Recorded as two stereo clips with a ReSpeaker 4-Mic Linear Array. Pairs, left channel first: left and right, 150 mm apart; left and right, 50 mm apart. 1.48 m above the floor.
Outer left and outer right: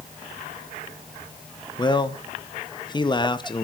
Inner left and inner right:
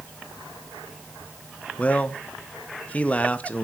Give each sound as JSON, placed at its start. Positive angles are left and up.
{"t": 1.8, "sound": "a man speaking", "side_deg": 30, "distance_m": 1.2}